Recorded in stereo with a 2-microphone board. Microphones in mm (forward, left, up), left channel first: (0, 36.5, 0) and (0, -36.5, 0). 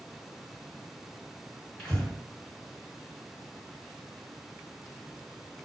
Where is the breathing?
20° left (ahead or behind), 1.9 m.